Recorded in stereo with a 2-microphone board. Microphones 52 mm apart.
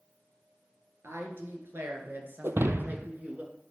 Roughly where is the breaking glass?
Right.